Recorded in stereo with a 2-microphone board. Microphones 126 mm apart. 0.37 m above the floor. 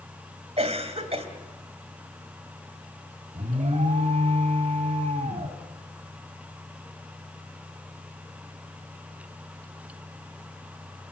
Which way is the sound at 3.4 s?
60° right (ahead or behind).